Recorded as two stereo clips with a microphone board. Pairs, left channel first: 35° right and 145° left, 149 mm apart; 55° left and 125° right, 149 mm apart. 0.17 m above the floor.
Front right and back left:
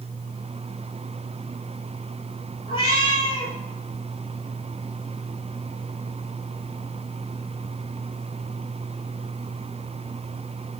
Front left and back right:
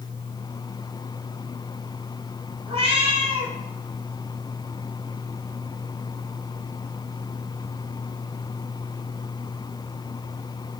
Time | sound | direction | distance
2.7 | a cat meowing | 80° right | 0.9 m